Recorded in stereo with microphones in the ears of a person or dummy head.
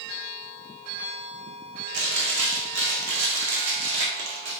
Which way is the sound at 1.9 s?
65° right (ahead or behind).